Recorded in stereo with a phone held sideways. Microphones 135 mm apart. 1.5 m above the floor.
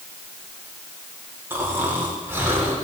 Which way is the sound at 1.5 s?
15° right (ahead or behind).